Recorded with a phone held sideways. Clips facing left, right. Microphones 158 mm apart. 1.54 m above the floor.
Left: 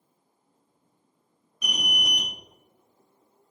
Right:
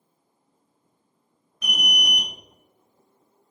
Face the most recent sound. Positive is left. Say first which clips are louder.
# right 2 dB
turn(degrees=15)  # may be behind; listen again after turning